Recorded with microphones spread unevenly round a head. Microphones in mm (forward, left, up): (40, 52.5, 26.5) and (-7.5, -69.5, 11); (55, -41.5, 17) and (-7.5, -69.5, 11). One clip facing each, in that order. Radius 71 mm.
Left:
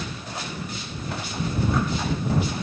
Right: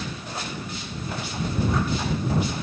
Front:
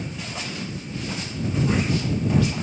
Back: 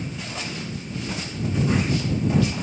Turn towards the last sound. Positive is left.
No sound to turn to.